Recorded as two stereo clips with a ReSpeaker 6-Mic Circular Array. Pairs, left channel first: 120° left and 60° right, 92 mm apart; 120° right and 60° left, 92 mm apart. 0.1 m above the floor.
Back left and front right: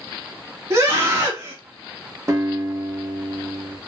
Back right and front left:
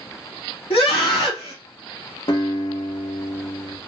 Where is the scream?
120° right, 3.5 m.